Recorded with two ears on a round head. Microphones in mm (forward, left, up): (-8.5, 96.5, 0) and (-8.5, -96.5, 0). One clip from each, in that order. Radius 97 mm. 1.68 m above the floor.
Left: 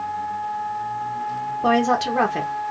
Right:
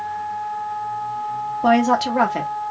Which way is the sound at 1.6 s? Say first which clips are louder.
Right 2 dB; centre (ahead or behind).